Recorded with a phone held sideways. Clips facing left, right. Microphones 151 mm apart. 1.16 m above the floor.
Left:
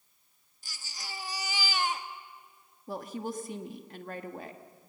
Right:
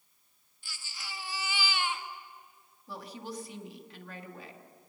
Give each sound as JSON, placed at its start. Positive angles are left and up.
{"t": 0.6, "sound": "a baby crying", "side_deg": 40, "distance_m": 1.2}
{"t": 2.9, "sound": "a woman speaking", "side_deg": 45, "distance_m": 1.6}